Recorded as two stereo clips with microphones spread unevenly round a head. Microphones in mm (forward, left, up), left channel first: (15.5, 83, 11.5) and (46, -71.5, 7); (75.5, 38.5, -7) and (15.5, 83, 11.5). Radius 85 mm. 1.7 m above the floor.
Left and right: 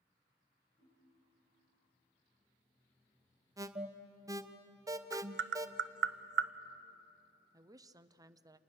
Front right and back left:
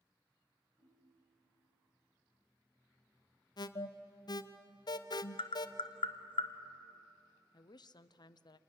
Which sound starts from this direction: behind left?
A ringtone, at 0.8 s.